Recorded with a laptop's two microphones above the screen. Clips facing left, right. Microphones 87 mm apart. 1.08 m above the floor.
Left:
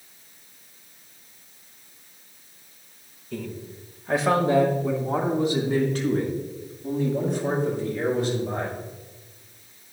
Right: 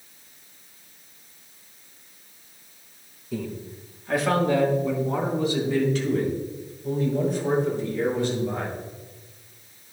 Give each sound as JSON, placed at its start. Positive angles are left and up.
{"t": 3.3, "sound": "a man speaking", "side_deg": -10, "distance_m": 1.0}